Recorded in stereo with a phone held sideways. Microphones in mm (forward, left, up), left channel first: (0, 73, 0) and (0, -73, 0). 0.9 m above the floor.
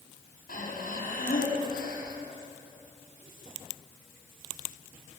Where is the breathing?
80° left, 7 m.